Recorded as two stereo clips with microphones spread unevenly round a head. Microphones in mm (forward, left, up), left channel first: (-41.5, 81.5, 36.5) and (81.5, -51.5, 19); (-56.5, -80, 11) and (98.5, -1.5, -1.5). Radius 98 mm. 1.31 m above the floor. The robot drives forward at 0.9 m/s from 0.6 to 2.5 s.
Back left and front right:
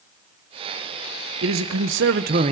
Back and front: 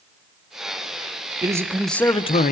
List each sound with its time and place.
1.4 s a man speaking: 45° right, 1.1 m; by 2.5 s 105° right, 0.8 m